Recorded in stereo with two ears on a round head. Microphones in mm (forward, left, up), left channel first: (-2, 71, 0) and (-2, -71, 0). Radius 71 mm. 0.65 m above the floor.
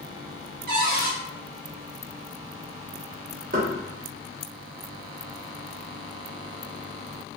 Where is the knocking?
55° right (ahead or behind), 1.4 m.